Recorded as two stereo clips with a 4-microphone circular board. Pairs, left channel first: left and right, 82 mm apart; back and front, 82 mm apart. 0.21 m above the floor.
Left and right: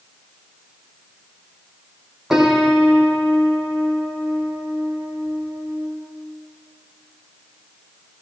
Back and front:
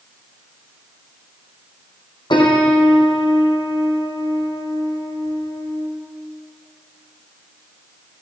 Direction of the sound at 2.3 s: 170° right.